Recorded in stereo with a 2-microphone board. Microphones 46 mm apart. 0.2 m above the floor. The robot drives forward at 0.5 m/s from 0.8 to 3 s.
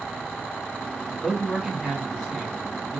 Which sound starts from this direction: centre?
A man speaking, at 1.2 s.